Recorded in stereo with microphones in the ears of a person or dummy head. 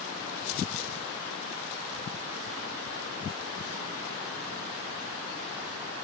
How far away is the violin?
I don't hear a violin.